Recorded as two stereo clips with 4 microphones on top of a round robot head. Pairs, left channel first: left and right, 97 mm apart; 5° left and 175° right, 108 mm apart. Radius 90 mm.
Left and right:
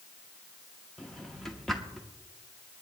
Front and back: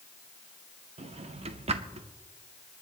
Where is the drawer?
175° left, 0.8 m.